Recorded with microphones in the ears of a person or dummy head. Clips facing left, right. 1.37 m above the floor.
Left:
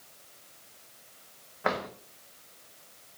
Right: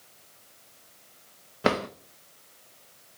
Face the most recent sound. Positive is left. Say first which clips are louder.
# right 6 dB
turn(degrees=-40)  # may be behind; listen again after turning